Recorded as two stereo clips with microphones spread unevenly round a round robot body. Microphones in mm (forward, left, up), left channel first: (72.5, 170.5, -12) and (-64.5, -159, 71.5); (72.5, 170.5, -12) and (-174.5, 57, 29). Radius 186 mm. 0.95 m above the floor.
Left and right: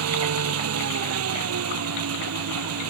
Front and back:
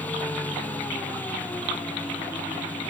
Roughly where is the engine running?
Ahead right.